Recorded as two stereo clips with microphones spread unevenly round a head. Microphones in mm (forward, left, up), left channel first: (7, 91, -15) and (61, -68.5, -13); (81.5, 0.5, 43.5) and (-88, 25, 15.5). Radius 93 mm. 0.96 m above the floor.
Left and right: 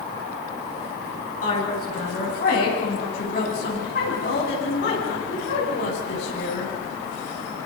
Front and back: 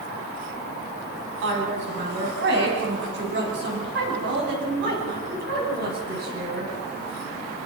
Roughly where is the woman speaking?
Behind.